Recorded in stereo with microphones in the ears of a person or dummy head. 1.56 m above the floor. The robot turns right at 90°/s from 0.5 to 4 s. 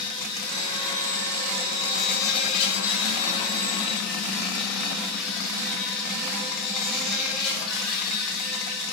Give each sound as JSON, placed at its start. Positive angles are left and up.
{"t": 0.0, "sound": "an insect", "azimuth_deg": -135, "distance_m": 1.7}